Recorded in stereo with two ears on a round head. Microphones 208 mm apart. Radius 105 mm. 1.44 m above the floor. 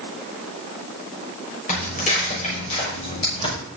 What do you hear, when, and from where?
1.7 s footsteps: 35° left (ahead or behind), 6.5 m; by 3.5 s 25° left (ahead or behind), 6.5 m